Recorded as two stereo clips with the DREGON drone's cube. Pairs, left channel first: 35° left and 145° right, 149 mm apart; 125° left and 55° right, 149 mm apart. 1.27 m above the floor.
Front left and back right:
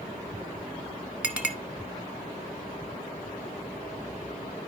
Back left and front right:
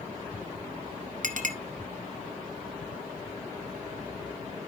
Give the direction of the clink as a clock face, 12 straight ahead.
2 o'clock.